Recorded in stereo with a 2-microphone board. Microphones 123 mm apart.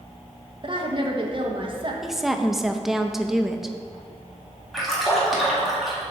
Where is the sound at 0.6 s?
40° right (ahead or behind), 1.2 m.